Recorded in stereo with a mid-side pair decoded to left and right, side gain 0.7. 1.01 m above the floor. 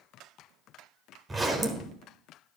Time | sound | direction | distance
1.3 | a zipper | 15° right | 1.6 m